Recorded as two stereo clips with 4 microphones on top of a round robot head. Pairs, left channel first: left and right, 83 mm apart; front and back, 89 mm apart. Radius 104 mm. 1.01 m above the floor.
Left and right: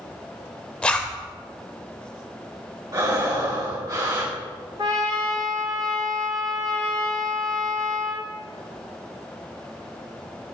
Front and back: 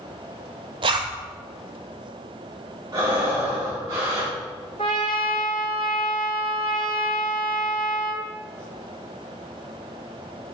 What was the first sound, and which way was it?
A zipper, 165° left.